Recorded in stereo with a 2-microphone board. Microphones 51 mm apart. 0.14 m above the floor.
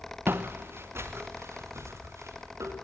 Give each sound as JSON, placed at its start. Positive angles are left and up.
{"t": 0.3, "sound": "footsteps", "side_deg": -45, "distance_m": 1.1}